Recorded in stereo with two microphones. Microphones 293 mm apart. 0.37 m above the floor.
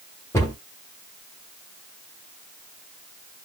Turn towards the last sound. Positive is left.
turn(degrees=10)  # may be behind; listen again after turning